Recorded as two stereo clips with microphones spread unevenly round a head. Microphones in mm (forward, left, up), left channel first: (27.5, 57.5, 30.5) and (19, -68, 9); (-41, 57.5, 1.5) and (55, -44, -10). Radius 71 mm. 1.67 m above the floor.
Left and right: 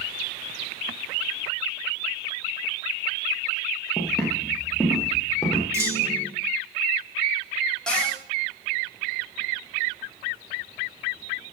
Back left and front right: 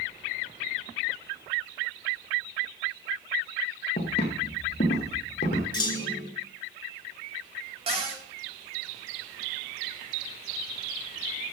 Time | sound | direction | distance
4.0 | footsteps | 175° left | 3.5 m
5.7 | a clunk | 170° right | 2.5 m
7.9 | a cupboard door | 5° left | 3.5 m